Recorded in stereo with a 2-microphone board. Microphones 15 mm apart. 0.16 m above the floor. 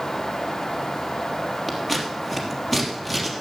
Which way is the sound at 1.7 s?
5° left (ahead or behind).